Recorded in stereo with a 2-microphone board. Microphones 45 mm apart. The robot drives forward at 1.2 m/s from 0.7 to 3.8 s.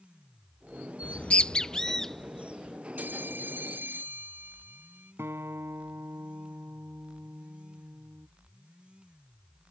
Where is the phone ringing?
50° right (ahead or behind); by 5.1 s 55° right (ahead or behind).